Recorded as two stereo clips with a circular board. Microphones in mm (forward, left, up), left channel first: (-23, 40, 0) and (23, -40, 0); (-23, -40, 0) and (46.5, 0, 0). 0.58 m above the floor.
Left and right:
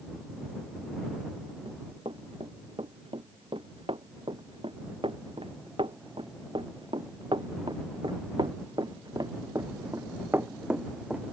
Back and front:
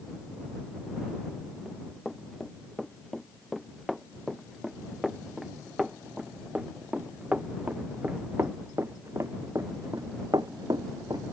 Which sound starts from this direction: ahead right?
Running footsteps, at 1.6 s.